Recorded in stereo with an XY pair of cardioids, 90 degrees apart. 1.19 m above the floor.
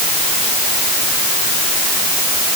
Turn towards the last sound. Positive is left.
No sound to turn to.